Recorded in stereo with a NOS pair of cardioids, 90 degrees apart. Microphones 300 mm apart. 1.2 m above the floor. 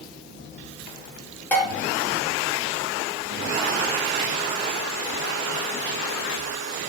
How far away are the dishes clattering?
About 0.8 m.